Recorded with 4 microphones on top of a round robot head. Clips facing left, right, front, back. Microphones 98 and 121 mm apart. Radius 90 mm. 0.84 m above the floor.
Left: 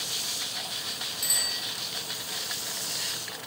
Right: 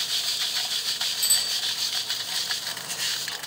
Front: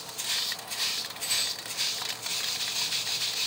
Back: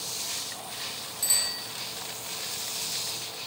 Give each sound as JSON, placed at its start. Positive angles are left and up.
{"t": 1.2, "sound": "a bicycle bell", "azimuth_deg": -165, "distance_m": 9.5}